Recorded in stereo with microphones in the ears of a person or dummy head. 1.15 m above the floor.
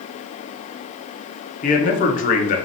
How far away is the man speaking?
About 0.6 m.